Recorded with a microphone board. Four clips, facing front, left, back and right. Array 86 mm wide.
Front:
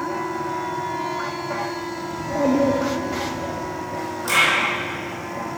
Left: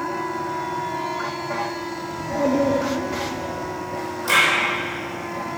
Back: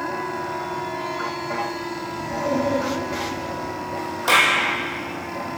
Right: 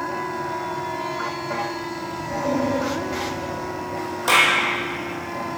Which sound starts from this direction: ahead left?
A child speaking, at 2.1 s.